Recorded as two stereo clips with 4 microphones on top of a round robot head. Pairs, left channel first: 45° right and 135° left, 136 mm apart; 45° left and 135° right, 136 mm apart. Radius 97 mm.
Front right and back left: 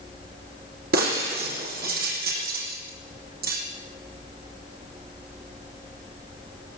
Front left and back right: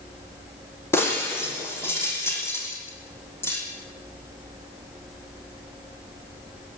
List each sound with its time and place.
0.9 s breaking glass: 120° left, 6.5 m